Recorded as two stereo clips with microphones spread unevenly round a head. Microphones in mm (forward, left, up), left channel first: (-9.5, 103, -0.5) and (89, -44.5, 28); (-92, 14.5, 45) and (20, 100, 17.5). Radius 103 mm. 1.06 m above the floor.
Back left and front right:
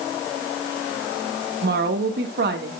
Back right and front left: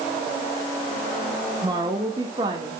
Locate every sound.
1.6 s a woman speaking: 30° right, 1.7 m